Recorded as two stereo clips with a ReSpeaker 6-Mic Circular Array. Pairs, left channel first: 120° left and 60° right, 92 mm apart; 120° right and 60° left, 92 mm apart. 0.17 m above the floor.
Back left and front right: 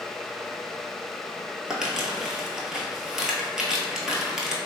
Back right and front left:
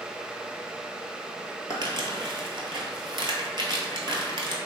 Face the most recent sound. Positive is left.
turn(degrees=25)